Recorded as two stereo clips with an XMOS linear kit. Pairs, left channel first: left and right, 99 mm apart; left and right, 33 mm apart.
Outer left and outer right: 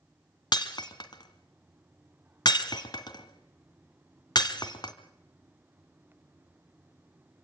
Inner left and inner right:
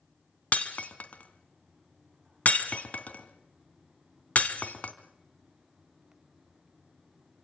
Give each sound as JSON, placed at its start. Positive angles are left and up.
{"t": 0.5, "sound": "breaking glass", "side_deg": 50, "distance_m": 1.7}